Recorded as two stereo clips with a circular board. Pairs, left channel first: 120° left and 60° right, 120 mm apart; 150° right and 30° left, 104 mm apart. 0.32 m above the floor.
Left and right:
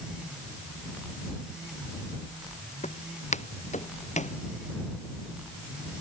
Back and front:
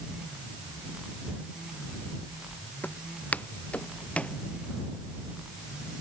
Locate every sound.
2.8 s footsteps: 135° left; by 4.4 s 130° left